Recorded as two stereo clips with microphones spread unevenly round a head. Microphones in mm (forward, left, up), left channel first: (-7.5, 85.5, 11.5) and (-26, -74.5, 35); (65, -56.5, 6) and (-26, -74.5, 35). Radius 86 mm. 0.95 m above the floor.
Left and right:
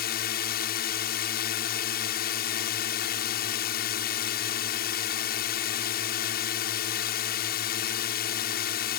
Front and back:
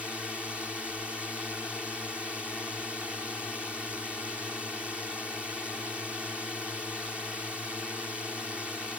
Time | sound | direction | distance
0.0 | a drone | 105° left | ?